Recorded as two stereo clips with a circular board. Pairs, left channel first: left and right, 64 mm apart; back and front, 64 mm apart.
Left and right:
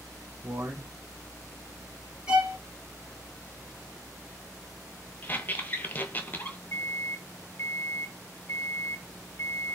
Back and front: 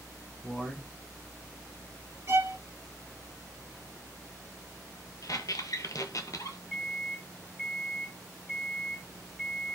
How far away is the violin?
About 1.4 m.